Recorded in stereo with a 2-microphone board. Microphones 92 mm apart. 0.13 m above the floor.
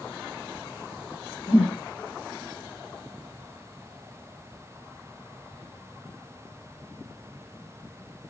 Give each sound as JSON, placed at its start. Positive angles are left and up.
{"t": 1.5, "sound": "a whoosh", "side_deg": 70, "distance_m": 2.5}